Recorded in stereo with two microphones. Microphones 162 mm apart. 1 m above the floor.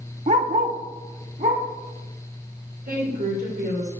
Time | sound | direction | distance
0.3 | a dog barking | 45° right (ahead or behind) | 0.5 m
2.9 | a woman speaking | 75° right (ahead or behind) | 3 m